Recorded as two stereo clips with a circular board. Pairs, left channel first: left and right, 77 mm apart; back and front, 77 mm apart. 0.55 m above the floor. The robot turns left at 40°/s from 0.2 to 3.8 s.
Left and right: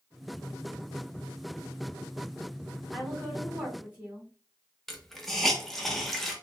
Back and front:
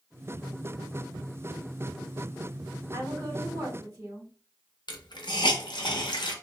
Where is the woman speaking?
20° left, 1.4 m; by 4.3 s 15° right, 1.4 m.